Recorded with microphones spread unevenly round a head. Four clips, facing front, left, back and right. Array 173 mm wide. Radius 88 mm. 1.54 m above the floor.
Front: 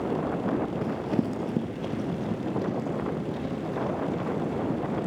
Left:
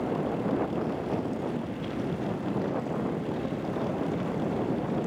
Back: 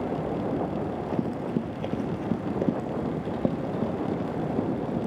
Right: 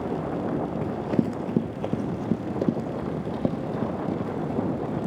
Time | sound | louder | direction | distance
0.8 | running footsteps | right 4 dB, front 1 dB | 65° right | 2 m